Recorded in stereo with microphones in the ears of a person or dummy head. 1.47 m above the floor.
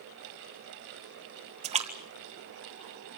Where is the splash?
25° right (ahead or behind), 1.5 m.